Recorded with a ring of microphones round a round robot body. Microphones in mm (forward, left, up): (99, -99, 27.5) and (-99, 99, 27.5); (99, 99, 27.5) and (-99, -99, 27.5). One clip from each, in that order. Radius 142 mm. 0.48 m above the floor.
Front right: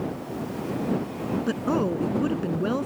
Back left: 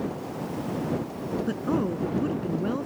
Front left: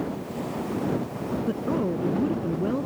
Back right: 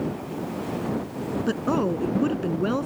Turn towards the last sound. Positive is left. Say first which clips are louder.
# front right 3 dB, back right 4 dB
turn(degrees=-115)